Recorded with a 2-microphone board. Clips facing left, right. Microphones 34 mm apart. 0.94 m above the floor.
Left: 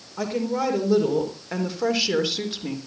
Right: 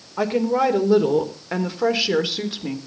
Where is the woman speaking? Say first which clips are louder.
Right 6 dB; 25° right (ahead or behind), 4 m; by 2.8 s 5° right (ahead or behind), 3.5 m.